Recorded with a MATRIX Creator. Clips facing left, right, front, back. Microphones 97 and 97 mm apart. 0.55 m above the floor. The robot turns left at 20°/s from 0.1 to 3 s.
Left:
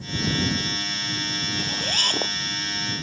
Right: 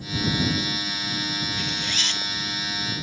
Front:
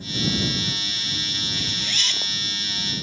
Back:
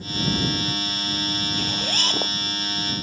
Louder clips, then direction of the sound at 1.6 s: Left 1 dB, back 5 dB; 140° left.